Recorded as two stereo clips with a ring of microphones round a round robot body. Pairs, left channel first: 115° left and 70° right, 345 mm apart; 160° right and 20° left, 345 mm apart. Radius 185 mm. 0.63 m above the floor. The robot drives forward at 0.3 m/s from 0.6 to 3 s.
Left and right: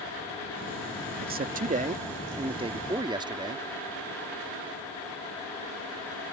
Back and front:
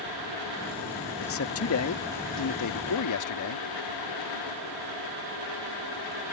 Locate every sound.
1.2 s a man speaking: 120° right; by 3.6 s 145° right